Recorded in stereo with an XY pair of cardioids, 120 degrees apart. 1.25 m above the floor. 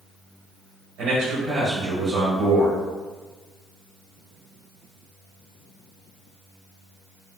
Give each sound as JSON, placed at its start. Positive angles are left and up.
{"t": 1.0, "sound": "a man speaking", "azimuth_deg": -65, "distance_m": 1.1}